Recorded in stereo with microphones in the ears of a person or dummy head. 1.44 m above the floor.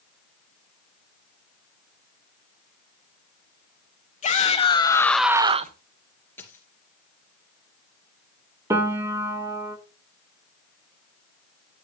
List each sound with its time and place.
4.2 s a shout: 40° left (ahead or behind), 2 m; by 5.8 s 50° right (ahead or behind), 1.1 m
6.4 s a dropped coin: 15° left (ahead or behind), 3 m
8.7 s a piano: 20° right (ahead or behind), 1.4 m